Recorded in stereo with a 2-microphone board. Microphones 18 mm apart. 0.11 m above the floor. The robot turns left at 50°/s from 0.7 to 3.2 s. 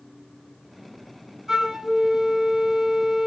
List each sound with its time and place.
1.5 s a flute: 35° right, 2.0 m; by 3.3 s 125° right, 2.0 m